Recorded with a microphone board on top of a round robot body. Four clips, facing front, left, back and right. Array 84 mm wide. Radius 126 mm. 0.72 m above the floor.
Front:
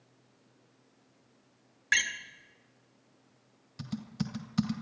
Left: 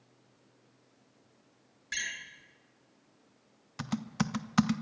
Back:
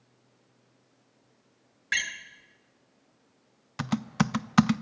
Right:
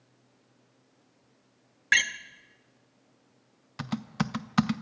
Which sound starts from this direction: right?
A door slam, at 1.9 s.